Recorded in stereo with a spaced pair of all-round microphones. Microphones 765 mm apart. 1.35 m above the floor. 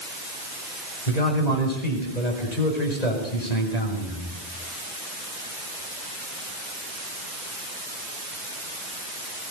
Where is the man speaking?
65° left (ahead or behind), 7.5 m.